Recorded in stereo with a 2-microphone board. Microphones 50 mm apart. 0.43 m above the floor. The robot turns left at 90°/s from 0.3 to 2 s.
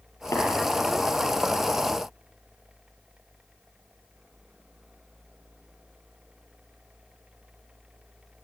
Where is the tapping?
80° left, 9.5 m; by 0.4 s 85° left, 9.5 m.